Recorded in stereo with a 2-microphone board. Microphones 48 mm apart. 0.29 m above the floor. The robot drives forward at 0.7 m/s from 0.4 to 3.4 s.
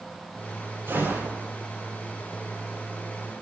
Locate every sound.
0.9 s a gunshot: 70° right (ahead or behind), 8 m